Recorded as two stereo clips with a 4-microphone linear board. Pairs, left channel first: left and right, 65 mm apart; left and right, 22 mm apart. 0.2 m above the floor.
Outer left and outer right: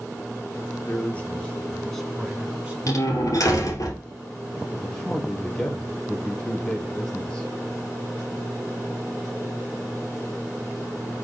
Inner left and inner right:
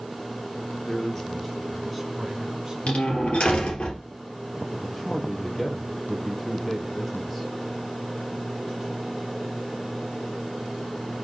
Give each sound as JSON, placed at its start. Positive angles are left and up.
{"t": 0.9, "sound": "a man speaking", "side_deg": 25, "distance_m": 3.0}
{"t": 2.9, "sound": "a door slam", "side_deg": 60, "distance_m": 3.0}
{"t": 4.8, "sound": "a man speaking", "side_deg": 20, "distance_m": 3.5}